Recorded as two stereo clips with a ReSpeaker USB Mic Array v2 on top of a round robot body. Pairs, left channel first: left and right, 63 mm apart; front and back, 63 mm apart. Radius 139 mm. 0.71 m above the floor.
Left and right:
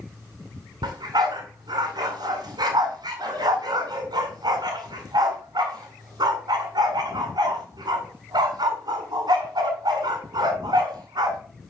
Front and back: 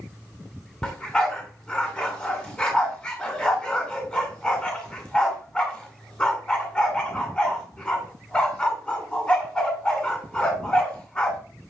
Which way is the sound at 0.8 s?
75° right.